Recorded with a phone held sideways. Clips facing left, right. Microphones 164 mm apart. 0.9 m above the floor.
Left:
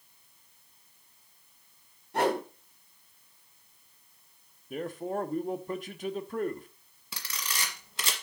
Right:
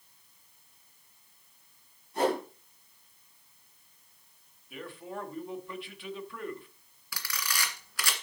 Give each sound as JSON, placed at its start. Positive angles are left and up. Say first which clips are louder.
{"t": 2.1, "sound": "a whoosh", "louder": "left 1 dB", "side_deg": 70, "distance_m": 4.5}
{"t": 4.7, "sound": "a man speaking", "louder": "left 8 dB", "side_deg": 40, "distance_m": 1.2}
{"t": 7.1, "sound": "a camera shutter", "louder": "right 1 dB", "side_deg": 25, "distance_m": 2.0}